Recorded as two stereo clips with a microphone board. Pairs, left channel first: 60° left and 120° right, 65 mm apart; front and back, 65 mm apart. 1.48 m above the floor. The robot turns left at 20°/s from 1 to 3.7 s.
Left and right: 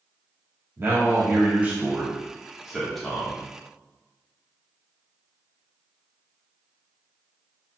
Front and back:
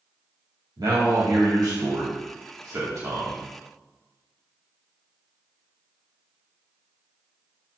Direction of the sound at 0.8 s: 175° right.